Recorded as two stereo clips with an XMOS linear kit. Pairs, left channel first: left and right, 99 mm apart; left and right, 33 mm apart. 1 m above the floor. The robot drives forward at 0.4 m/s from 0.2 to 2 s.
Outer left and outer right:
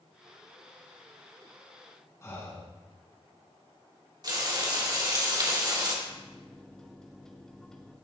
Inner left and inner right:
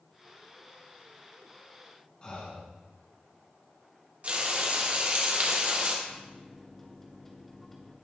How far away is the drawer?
No drawer in this recording.